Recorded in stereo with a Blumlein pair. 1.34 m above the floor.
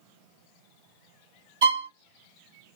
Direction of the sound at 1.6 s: 55° right.